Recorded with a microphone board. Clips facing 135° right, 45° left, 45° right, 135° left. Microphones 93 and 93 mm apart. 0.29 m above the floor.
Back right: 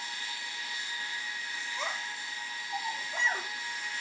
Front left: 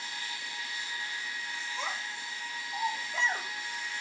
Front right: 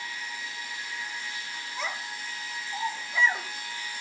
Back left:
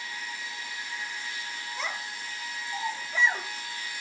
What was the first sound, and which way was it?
A child speaking, 135° right.